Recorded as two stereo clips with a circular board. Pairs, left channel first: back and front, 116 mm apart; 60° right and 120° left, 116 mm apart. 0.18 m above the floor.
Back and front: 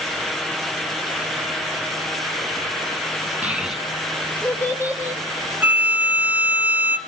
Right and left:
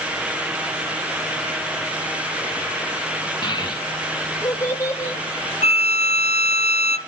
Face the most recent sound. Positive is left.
turn(degrees=-75)